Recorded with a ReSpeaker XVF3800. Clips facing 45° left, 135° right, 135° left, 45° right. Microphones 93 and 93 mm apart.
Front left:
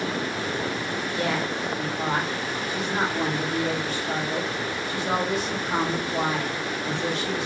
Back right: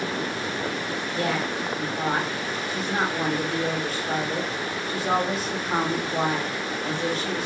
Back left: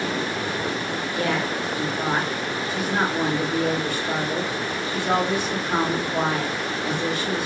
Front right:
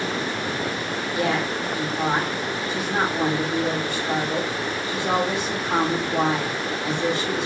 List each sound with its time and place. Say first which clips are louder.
1.1 s a woman speaking: back right 1 dB, front right 1 dB; 100° right, 1.3 m